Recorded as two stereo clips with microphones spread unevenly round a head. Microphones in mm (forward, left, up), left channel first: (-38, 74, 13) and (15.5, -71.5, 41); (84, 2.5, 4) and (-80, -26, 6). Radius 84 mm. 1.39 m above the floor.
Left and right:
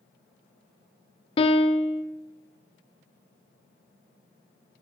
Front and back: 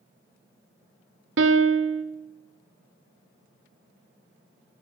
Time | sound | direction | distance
1.4 | a piano | 165° left | 0.6 m